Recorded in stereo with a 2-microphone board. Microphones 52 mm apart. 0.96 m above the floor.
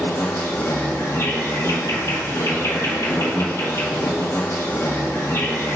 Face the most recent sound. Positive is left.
turn(degrees=60)  # may be behind; listen again after turning